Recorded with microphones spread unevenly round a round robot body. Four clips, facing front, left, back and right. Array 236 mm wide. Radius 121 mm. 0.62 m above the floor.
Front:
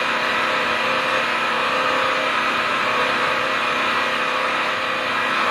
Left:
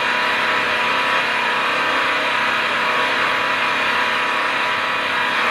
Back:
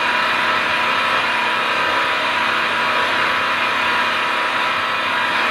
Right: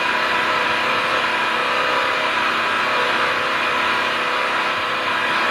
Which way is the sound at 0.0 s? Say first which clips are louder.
Even, back 3 dB; 150° right.